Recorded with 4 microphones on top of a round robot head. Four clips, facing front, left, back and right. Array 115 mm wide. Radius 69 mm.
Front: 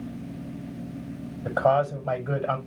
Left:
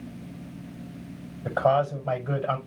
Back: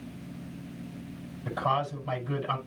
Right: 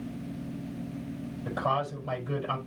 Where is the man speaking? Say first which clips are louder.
Left 7 dB, front 7 dB; 45° left, 6 m.